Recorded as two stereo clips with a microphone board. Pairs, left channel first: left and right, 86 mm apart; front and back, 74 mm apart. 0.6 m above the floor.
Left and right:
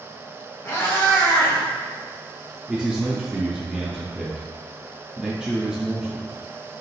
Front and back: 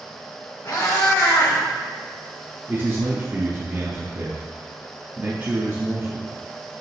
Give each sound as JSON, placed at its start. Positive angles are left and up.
{"t": 0.7, "sound": "a cat meowing", "azimuth_deg": 25, "distance_m": 1.4}
{"t": 2.7, "sound": "a man speaking", "azimuth_deg": -165, "distance_m": 0.6}